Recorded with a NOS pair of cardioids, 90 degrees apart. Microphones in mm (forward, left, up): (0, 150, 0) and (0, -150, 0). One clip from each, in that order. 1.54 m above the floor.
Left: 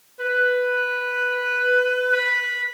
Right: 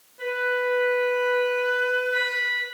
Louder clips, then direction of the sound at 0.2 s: Left 5 dB; 25° left.